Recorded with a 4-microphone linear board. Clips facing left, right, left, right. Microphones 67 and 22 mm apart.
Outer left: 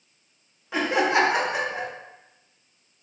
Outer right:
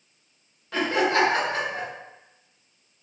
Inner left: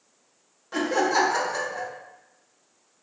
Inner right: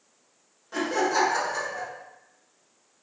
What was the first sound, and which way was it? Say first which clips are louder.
Laughter: outer left 1 dB, inner left 2 dB; 15° left (ahead or behind).